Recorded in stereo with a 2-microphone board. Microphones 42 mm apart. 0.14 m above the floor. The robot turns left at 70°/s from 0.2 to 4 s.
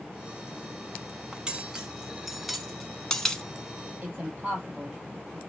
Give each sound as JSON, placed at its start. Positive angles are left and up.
{"t": 1.3, "sound": "cutlery clinking", "side_deg": -20, "distance_m": 0.6}
{"t": 4.0, "sound": "a woman speaking", "side_deg": -25, "distance_m": 3.0}